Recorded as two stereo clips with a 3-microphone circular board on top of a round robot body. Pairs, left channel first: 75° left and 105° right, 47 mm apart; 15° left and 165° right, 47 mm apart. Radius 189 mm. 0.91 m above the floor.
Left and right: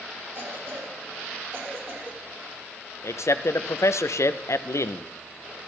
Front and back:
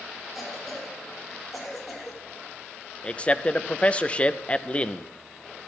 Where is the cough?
75° right, 5 m.